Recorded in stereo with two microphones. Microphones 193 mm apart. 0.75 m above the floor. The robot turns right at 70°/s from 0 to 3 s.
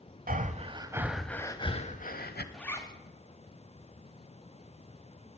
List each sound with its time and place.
0.3 s breathing: 65° right, 0.8 m; by 2.4 s 90° left, 0.8 m
2.5 s a zipper: 5° left (ahead or behind), 1.4 m; by 2.9 s 25° left (ahead or behind), 1.4 m